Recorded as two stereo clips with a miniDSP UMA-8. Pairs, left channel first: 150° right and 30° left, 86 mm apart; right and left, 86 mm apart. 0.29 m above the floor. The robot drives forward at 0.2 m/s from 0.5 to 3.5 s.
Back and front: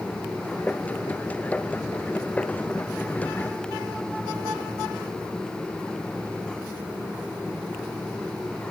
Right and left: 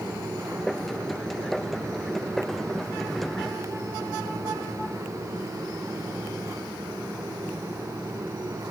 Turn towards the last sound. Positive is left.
No sound to turn to.